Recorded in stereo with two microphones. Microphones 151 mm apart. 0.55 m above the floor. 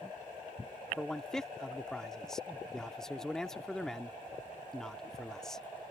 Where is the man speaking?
5° left (ahead or behind).